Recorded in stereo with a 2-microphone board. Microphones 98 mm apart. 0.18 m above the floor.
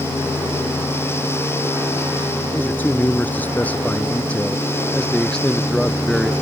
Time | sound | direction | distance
2.5 | a man speaking | 20° left (ahead or behind) | ?